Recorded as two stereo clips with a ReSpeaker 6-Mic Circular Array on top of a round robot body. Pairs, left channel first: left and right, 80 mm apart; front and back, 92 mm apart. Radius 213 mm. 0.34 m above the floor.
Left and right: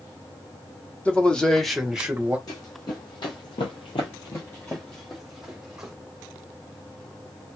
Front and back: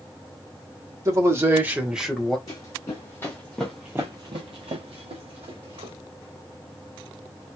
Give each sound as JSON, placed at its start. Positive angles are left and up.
{"t": 1.1, "sound": "a man speaking", "azimuth_deg": 155, "distance_m": 1.7}
{"t": 2.5, "sound": "running footsteps", "azimuth_deg": 50, "distance_m": 1.2}